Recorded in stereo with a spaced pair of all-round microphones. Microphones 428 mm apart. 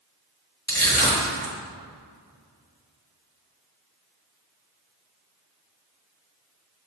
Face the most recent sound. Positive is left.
turn(degrees=10)  # may be behind; listen again after turning